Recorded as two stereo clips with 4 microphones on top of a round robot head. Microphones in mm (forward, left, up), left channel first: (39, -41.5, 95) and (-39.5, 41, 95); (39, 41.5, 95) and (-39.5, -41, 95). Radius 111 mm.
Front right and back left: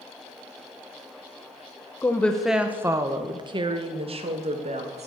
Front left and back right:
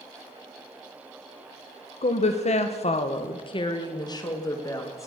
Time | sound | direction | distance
2.0 | a woman speaking | 25° left | 1.0 m